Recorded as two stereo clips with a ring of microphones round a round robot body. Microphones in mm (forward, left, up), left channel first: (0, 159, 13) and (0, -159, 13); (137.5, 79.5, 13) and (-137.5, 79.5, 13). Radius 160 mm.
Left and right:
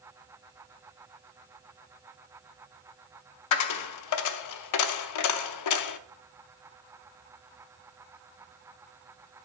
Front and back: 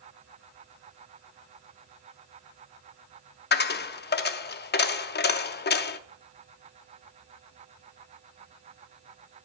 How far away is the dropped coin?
About 0.6 m.